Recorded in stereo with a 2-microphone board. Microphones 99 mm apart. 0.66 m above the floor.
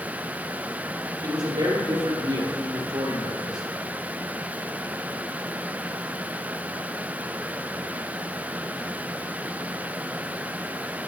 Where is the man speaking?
50° right (ahead or behind), 2.5 m.